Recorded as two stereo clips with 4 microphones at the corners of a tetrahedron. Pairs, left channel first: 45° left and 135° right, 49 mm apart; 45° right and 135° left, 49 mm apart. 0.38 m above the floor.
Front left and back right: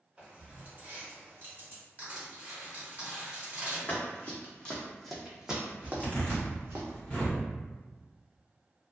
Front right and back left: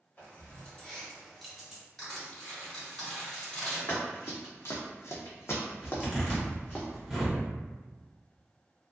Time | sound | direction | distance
0.2 | keys jangling | 80° right | 0.9 m
2.0 | crushing | 125° right | 1.7 m
3.9 | running footsteps | 5° right | 1.1 m
5.8 | a zipper | 55° left | 1.0 m